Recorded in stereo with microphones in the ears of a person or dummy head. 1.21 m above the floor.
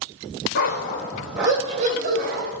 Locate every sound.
0.6 s a dog barking: 45° left (ahead or behind), 0.8 m; by 2.5 s 50° right (ahead or behind), 1.1 m